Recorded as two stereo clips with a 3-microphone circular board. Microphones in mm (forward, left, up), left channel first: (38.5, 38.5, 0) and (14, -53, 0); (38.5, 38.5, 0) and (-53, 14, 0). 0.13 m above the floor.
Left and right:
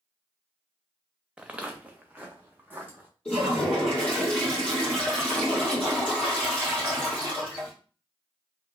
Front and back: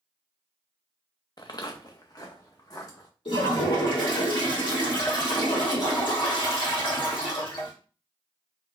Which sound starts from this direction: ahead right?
Footsteps, at 1.4 s.